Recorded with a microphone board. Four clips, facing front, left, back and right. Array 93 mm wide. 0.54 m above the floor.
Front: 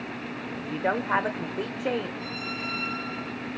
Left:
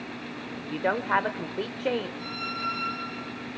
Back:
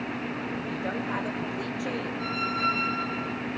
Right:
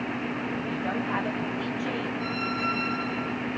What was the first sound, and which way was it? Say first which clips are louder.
A woman speaking: left 1 dB, front 3 dB; 55° left.